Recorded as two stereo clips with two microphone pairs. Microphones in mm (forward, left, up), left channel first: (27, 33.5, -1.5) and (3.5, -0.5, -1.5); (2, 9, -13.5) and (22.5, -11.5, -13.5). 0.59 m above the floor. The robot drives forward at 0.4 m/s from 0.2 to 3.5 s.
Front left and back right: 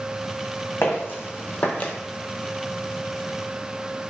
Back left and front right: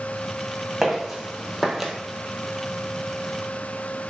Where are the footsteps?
35° left, 1.5 m.